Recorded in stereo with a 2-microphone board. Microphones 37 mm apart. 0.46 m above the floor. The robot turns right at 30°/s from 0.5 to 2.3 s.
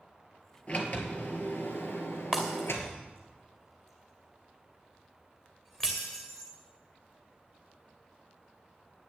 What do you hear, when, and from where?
0.7 s a sliding door: 35° left, 2 m; by 3.0 s 85° left, 2 m
2.3 s breaking glass: 15° left (ahead or behind), 2.5 m